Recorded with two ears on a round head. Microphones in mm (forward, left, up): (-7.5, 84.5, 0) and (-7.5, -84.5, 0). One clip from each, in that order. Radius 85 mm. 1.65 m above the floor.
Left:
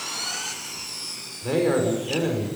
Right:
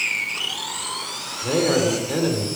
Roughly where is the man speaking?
Centre.